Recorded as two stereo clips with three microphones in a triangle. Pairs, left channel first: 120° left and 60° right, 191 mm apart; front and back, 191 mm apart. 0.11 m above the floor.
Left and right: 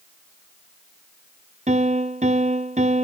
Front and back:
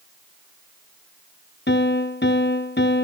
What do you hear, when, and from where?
1.7 s a piano: 10° right, 0.8 m